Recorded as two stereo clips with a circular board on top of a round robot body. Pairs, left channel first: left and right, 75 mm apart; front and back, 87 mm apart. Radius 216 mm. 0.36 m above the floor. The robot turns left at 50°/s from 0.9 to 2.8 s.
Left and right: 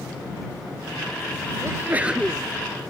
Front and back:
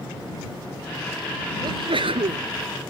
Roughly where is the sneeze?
Behind right.